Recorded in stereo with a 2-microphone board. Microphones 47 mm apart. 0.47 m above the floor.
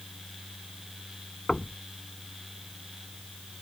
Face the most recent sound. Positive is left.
turn(degrees=10)  # may be behind; listen again after turning